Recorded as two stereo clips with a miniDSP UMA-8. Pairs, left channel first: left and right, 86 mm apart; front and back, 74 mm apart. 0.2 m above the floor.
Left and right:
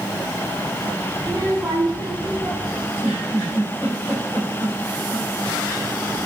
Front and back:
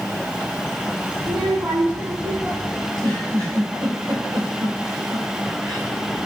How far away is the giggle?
About 3.5 m.